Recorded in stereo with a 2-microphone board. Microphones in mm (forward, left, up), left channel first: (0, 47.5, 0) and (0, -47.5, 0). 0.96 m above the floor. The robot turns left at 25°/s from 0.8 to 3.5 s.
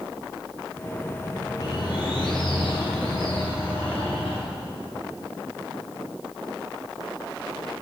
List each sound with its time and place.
1.6 s a bird: 135° left, 3 m; by 4.4 s 90° left, 3 m